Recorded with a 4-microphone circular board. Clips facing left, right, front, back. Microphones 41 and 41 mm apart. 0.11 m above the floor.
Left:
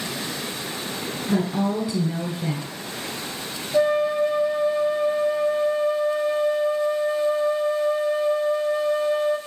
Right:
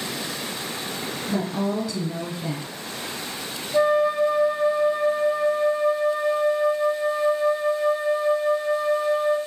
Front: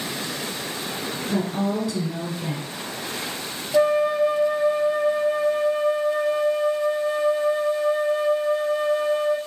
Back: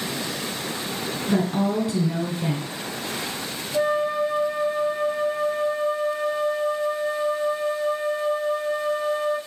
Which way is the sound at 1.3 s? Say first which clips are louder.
Left 3 dB, back 2 dB; 140° left.